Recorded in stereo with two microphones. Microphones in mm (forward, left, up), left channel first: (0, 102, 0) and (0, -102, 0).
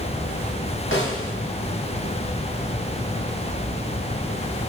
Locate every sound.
0.9 s a snare drum: 85° left, 5 m